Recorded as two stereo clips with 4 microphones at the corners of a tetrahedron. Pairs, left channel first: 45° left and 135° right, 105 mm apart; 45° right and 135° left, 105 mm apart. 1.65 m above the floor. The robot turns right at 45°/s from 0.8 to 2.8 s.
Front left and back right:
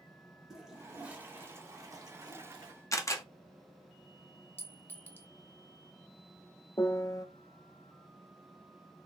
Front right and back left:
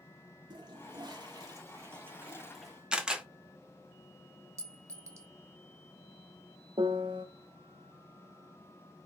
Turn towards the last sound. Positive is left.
turn(degrees=95)